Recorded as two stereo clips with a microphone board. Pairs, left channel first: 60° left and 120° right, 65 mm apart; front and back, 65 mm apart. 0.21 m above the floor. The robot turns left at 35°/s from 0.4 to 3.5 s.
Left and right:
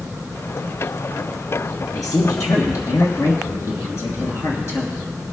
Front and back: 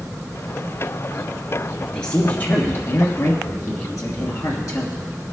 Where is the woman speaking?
80° left, 3 m; by 5.0 s 25° left, 3 m.